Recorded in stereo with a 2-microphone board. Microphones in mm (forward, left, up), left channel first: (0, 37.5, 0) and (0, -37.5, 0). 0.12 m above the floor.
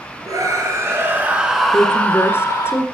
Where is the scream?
55° right (ahead or behind), 2.5 m; by 2.7 s 45° left (ahead or behind), 2 m.